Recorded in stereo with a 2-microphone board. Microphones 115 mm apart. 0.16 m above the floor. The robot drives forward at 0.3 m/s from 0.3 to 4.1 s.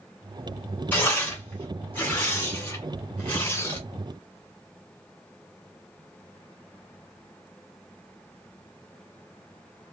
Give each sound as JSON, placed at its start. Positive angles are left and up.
{"t": 0.9, "sound": "tearing paper", "side_deg": 20, "distance_m": 2.0}